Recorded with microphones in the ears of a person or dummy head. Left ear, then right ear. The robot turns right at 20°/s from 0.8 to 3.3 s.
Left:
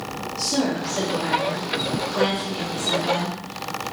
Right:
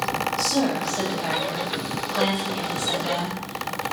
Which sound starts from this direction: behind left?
A woman speaking, at 0.4 s.